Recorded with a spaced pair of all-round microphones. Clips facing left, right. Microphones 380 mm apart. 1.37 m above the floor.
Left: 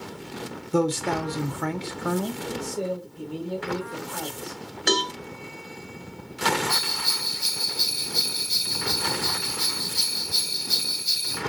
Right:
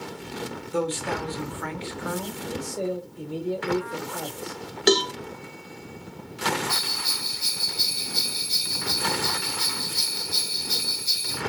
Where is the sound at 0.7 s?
55° left (ahead or behind), 0.6 m.